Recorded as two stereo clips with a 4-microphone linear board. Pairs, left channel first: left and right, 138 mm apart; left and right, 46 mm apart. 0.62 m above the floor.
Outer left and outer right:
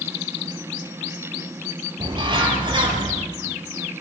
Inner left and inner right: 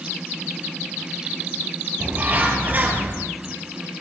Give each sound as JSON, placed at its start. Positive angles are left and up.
{"t": 2.0, "sound": "a bird", "side_deg": -35, "distance_m": 4.5}